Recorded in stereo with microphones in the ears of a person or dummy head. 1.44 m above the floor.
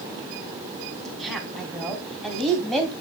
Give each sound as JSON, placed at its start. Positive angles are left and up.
{"t": 1.1, "sound": "a woman speaking", "side_deg": -5, "distance_m": 3.5}